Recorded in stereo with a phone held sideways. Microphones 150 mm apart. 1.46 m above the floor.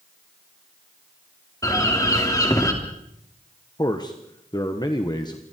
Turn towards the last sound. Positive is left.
turn(degrees=25)  # may be behind; listen again after turning